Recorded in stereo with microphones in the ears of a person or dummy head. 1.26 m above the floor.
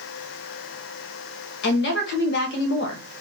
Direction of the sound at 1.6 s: 60° left (ahead or behind).